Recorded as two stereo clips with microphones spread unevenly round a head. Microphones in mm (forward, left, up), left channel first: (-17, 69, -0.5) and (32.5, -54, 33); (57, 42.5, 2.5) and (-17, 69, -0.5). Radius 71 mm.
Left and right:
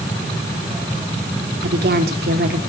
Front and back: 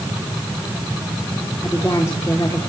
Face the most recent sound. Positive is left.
turn(degrees=-90)